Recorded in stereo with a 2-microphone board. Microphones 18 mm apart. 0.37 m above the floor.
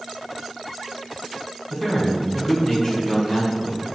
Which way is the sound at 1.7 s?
30° left (ahead or behind).